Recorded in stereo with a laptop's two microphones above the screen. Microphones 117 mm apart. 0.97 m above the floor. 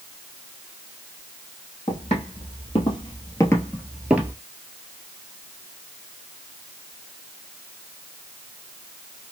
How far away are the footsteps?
About 1.9 m.